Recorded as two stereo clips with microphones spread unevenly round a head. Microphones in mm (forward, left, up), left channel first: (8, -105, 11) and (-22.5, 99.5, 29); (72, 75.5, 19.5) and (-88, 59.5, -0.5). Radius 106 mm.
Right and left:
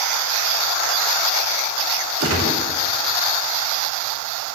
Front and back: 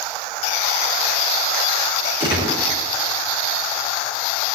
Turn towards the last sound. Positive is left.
turn(degrees=125)